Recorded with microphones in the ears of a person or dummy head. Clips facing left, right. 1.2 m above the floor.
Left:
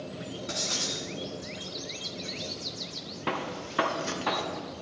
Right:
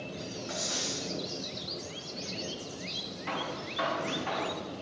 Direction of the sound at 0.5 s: 40° left (ahead or behind).